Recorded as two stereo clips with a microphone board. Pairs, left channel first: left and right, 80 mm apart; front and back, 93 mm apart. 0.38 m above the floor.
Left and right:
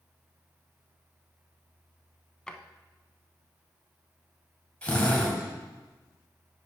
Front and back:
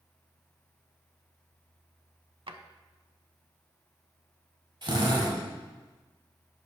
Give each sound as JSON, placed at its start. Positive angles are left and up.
{"t": 2.5, "sound": "a drawer", "azimuth_deg": 165, "distance_m": 0.6}
{"t": 4.8, "sound": "a drill", "azimuth_deg": 160, "distance_m": 1.7}